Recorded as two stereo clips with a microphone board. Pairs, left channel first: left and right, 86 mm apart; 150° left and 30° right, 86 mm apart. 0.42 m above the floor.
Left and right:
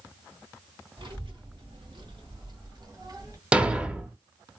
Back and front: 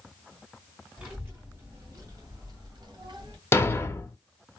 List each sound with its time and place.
1.0 s a child speaking: 100° right, 2.5 m; by 3.4 s 40° right, 1.7 m
3.5 s a thud: 160° right, 0.5 m